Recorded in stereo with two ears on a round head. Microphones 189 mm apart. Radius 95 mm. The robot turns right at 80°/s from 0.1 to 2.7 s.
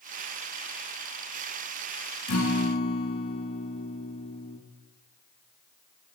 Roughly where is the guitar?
Left.